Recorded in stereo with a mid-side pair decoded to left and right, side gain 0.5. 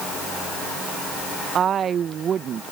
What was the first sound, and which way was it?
A woman speaking, 50° right.